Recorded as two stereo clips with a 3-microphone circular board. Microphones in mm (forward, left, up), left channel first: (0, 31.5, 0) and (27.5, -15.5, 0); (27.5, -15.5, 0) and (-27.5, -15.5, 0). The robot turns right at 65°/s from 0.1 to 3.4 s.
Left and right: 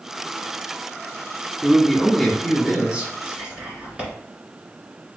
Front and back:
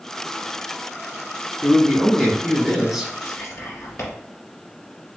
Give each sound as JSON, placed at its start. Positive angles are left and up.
{"t": 1.6, "sound": "a man speaking", "azimuth_deg": 165, "distance_m": 1.3}
{"t": 3.2, "sound": "whispering", "azimuth_deg": -5, "distance_m": 1.9}